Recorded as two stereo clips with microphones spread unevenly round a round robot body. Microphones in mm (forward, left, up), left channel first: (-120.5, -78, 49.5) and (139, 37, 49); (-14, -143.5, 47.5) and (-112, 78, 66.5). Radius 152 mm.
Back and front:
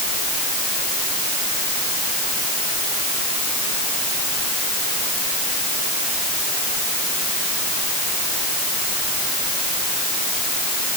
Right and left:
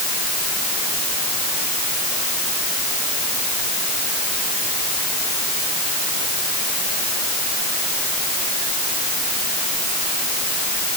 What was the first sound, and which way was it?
Only background noise.